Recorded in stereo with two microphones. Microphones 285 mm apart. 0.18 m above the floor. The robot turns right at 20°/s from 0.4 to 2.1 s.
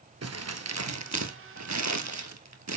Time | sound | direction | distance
0.2 | crumpling | 60° right (ahead or behind) | 1.1 m